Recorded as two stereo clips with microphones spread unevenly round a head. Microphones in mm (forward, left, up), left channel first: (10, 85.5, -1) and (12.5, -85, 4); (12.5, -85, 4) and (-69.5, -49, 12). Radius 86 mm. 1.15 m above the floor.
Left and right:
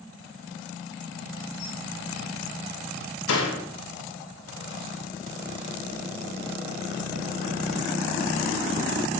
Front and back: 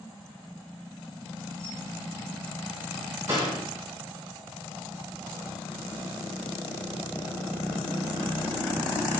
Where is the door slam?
85° left, 3.5 m.